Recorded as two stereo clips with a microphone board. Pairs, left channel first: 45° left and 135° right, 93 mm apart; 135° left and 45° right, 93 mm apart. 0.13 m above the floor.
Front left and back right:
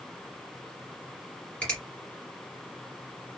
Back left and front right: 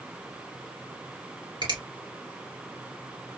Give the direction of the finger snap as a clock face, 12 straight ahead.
1 o'clock.